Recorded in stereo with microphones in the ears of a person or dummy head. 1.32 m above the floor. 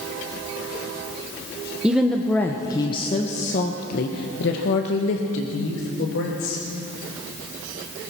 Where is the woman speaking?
Centre (ahead or behind), 1.2 m; by 6.6 s 80° left, 3 m.